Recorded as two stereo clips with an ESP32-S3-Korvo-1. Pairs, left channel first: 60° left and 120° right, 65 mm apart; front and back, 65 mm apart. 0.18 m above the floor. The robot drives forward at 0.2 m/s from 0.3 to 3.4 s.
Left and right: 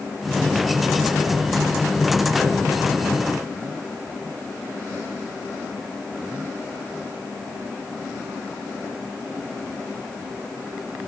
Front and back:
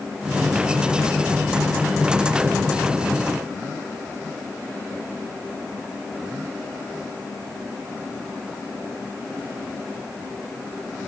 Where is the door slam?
No door slam in this recording.